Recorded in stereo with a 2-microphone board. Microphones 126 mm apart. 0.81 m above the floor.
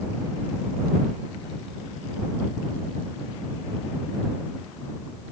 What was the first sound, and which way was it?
Only background noise.